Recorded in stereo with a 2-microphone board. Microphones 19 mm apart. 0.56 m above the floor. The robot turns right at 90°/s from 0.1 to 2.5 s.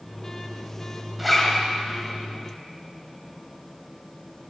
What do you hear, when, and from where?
1.2 s a zipper: 5° right, 2.5 m; by 1.6 s 35° left, 2.5 m